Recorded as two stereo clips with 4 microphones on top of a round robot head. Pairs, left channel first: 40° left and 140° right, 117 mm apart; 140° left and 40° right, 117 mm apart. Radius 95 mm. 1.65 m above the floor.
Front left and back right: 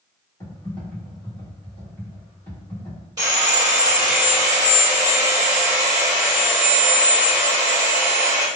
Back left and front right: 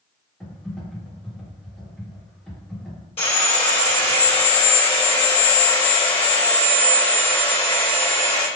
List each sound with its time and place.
0.4 s typing on a keyboard: 70° left, 1.3 m
3.2 s sawing: 170° left, 1.2 m